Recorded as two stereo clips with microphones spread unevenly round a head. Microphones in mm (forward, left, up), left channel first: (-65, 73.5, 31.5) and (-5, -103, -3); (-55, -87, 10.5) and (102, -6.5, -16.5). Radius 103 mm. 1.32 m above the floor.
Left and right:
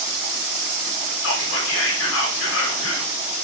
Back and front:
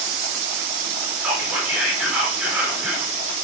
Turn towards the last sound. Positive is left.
turn(degrees=110)